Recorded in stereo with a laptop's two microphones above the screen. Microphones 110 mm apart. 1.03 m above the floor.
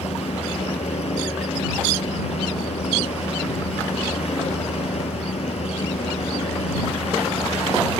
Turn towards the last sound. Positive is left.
turn(degrees=70)  # may be behind; listen again after turning